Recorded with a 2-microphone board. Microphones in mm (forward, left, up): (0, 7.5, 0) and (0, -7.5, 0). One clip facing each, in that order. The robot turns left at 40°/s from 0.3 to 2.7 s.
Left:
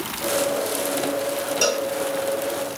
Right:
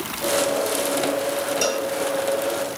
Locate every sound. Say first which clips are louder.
1.6 s a cowbell: left 4 dB; 15° left (ahead or behind), 1.8 m; by 1.9 s 20° left (ahead or behind), 1.8 m